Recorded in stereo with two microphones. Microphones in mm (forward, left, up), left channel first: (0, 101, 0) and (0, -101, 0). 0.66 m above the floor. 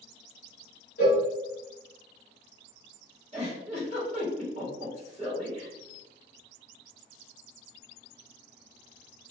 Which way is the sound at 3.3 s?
30° right (ahead or behind).